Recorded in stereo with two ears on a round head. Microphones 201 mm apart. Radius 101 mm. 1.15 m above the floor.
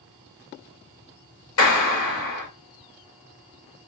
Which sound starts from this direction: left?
A clap, at 1.6 s.